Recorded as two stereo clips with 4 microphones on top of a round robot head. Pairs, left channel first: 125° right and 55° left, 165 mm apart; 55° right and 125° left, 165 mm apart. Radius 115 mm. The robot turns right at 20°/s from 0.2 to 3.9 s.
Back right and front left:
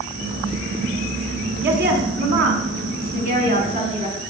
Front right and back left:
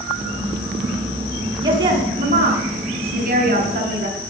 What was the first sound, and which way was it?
A woman speaking, 60° left.